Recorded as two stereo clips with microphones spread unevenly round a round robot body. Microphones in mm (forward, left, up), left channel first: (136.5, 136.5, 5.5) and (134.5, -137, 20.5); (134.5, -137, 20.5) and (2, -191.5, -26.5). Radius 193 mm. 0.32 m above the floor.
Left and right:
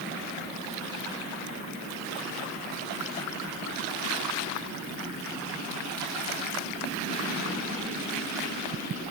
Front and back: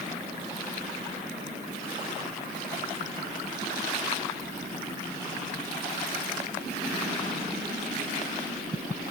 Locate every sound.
Only background noise.